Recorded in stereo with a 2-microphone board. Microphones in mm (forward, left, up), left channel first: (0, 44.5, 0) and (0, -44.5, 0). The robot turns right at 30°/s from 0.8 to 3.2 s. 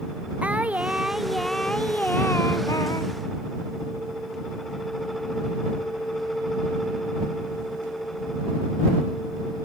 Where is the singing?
15° right; by 3.1 s 55° left.